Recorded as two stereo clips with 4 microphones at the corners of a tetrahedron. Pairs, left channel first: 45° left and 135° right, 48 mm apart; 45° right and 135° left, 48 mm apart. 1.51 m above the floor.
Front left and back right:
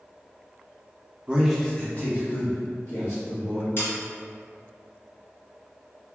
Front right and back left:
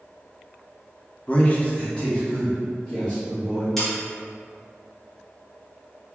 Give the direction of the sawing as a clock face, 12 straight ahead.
11 o'clock.